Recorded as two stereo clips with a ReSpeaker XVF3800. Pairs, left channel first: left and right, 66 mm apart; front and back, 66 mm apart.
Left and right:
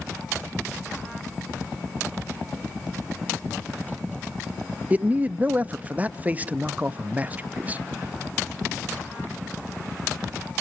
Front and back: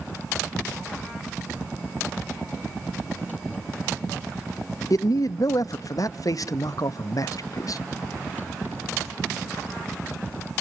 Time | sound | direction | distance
4.9 | a man speaking | 25° right | 0.6 m